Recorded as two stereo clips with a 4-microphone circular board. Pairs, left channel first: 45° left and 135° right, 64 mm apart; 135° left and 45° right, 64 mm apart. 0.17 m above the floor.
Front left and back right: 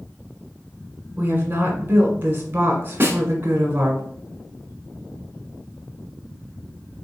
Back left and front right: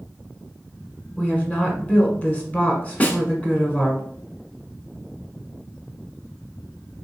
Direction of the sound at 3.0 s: 170° right.